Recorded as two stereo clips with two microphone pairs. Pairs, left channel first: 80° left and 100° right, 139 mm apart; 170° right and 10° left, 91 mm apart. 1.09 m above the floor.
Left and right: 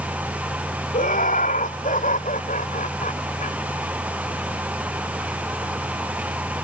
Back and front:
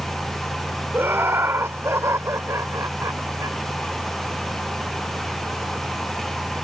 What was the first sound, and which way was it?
Laughter, 75° left.